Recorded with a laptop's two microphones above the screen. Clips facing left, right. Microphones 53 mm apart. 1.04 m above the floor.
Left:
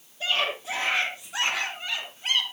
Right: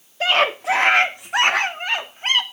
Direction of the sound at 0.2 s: 75° right (ahead or behind).